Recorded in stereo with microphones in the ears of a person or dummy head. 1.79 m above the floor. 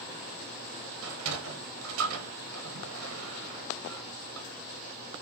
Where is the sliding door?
80° right, 0.8 m.